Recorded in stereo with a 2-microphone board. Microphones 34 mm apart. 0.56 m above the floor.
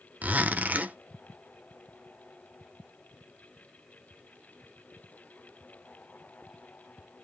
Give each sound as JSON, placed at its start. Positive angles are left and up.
{"t": 0.2, "sound": "a zipper", "side_deg": -45, "distance_m": 0.7}